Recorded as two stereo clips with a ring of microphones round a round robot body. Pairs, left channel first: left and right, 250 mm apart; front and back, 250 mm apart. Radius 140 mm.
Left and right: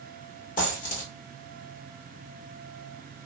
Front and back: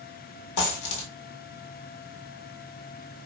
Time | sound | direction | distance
0.6 | a dropped coin | 30° left | 1.2 m